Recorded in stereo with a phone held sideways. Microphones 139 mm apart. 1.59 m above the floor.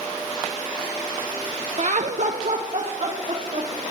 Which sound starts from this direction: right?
Laughter, at 1.8 s.